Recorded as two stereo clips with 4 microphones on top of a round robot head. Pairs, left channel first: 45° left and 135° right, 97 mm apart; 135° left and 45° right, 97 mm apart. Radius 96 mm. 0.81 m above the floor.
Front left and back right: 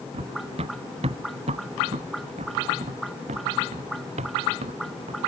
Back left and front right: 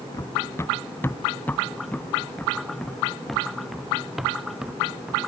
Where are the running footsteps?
165° right; by 5.2 s 125° right.